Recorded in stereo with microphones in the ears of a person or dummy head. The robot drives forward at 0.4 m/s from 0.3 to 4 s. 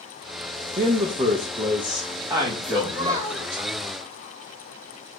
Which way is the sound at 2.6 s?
25° right (ahead or behind).